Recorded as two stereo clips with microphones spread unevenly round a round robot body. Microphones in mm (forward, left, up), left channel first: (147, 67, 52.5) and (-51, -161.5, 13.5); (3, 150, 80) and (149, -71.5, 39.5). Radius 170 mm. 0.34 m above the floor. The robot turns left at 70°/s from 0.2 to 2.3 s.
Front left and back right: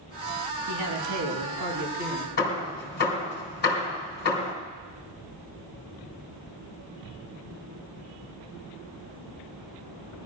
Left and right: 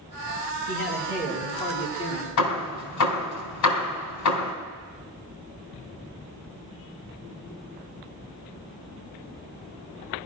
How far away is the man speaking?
About 4 m.